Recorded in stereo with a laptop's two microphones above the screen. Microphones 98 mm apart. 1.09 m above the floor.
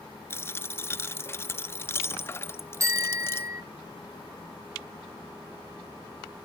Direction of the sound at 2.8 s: 35° right (ahead or behind).